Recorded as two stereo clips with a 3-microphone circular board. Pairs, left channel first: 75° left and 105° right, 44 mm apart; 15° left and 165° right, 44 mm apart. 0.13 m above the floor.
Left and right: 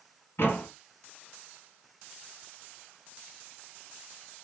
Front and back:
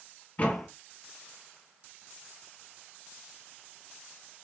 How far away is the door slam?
About 1.7 m.